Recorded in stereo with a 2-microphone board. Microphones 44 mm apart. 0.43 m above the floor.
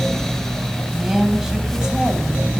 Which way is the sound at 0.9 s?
10° right (ahead or behind).